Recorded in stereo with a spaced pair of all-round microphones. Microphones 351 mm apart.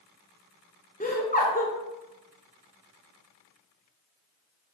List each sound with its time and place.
1.0 s laughter: 25° left (ahead or behind), 0.5 m